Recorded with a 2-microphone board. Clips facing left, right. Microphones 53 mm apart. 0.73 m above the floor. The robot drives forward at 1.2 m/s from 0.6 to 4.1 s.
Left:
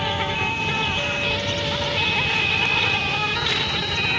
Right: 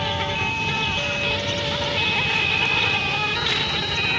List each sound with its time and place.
0.0 s an insect: 10° left (ahead or behind); by 4.2 s 5° left (ahead or behind)